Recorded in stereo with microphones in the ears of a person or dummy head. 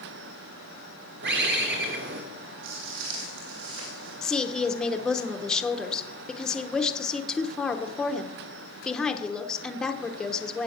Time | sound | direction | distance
1.2 | a bird | 50° right (ahead or behind) | 1.9 m
2.6 | footsteps | 70° right (ahead or behind) | 3 m
4.2 | a woman speaking | 5° right (ahead or behind) | 1.0 m